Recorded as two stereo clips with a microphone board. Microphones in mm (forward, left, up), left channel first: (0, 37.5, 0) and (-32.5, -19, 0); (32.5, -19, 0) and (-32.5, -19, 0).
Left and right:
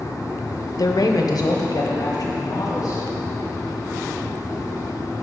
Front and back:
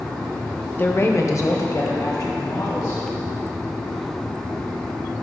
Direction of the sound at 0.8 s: 55° left.